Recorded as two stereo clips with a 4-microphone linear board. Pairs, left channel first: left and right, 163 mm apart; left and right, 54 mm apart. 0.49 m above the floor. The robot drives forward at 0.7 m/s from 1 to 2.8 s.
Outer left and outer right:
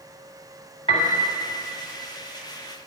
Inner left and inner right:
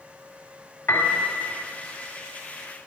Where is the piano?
35° left (ahead or behind), 2.5 m; by 1.2 s 40° left (ahead or behind), 2.5 m.